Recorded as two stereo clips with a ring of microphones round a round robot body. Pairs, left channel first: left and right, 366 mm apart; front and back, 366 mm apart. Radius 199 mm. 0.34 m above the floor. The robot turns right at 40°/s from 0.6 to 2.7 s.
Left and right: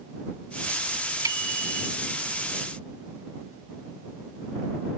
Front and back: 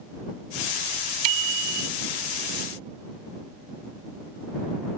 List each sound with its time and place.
1.2 s a bicycle bell: 170° right; by 1.9 s 145° right